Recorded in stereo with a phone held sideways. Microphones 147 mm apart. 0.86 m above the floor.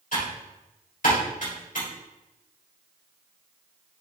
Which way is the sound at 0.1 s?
65° left (ahead or behind).